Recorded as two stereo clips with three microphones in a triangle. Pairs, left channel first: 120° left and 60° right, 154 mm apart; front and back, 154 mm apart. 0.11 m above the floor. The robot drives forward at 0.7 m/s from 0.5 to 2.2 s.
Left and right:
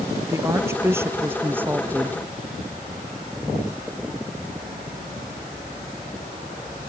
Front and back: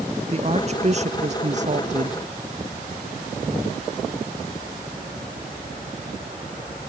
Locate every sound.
0.3 s a woman speaking: 135° right; by 2.2 s 140° right